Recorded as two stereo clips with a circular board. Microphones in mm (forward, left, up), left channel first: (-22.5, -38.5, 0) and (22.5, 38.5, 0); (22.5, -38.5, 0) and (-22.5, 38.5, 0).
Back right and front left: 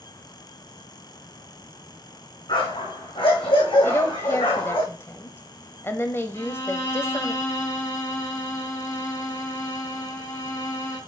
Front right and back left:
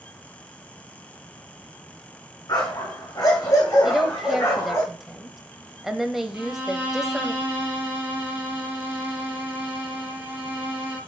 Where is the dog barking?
105° right, 4 m; by 4.8 s 120° right, 4.5 m.